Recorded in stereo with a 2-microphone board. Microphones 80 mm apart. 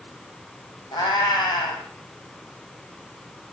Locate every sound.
0.9 s a cat meowing: 65° left (ahead or behind), 3.5 m